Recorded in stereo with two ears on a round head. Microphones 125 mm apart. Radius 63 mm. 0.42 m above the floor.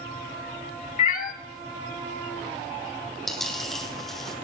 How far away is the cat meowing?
About 0.8 m.